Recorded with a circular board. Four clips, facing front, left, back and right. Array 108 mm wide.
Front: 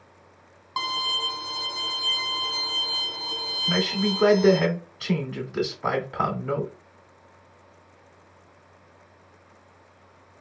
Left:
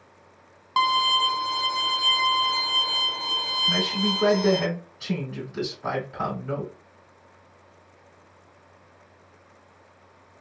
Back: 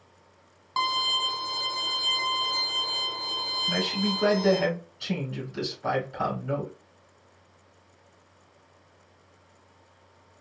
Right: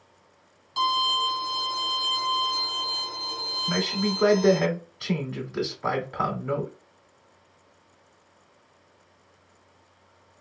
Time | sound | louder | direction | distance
0.8 | a violin | left 3 dB, back 2 dB | 90° left | 0.9 m
3.7 | a man speaking | right 1 dB, front 4 dB | 25° right | 2 m